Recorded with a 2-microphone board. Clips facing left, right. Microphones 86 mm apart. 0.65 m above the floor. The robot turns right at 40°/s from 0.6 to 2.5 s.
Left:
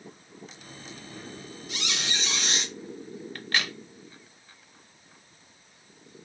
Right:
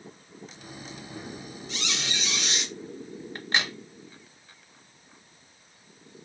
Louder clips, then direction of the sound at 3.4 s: Right 2 dB; 20° right (ahead or behind).